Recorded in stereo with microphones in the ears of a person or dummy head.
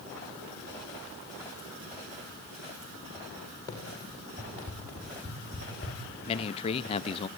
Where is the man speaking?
30° left (ahead or behind), 0.8 m.